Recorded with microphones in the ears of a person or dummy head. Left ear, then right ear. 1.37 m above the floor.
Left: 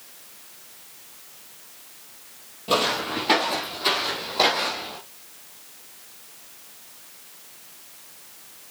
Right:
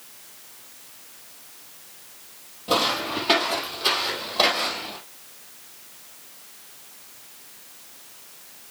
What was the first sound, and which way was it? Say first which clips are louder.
Footsteps: even; centre (ahead or behind).